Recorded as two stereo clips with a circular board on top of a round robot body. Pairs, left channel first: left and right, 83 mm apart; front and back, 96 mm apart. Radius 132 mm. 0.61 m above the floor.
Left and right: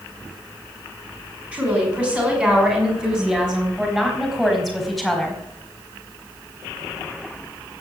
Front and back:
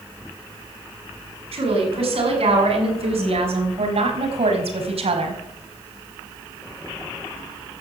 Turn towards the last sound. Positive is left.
turn(degrees=175)